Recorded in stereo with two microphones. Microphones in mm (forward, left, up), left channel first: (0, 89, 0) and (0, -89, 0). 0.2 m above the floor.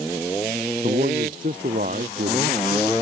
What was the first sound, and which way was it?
A man speaking, 50° right (ahead or behind).